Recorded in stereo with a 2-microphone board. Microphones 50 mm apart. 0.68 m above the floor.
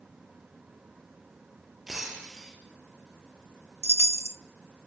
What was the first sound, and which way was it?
Breaking glass, 5° right (ahead or behind).